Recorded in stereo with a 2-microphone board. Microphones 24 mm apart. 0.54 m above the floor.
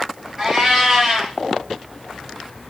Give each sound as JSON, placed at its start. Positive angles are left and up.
{"t": 0.4, "sound": "a cat meowing", "side_deg": -20, "distance_m": 5.5}